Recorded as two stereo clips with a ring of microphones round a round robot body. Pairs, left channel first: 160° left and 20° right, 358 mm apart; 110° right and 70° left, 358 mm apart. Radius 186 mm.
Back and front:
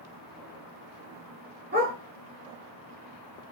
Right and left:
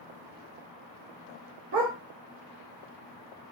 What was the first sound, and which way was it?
A dog barking, 30° left.